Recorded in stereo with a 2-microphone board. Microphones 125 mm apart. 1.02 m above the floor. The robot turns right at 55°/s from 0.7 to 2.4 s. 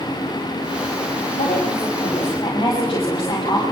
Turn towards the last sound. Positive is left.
turn(degrees=145)